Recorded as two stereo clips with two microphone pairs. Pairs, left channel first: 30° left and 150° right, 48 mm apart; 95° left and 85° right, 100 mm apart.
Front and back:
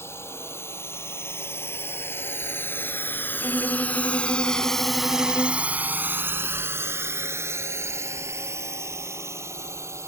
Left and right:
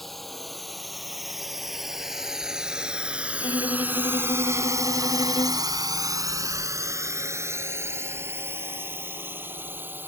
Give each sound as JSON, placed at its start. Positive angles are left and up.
{"t": 0.0, "sound": "a drone", "azimuth_deg": 10}
{"t": 3.4, "sound": "a violin", "azimuth_deg": 60}